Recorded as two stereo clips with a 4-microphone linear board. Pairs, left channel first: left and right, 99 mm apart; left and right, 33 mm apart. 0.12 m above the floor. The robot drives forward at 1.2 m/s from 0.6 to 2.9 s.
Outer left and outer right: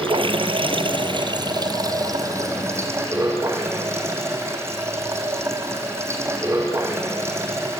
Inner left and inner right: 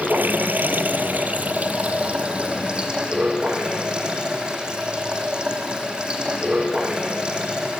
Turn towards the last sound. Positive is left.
turn(degrees=-25)  # may be behind; listen again after turning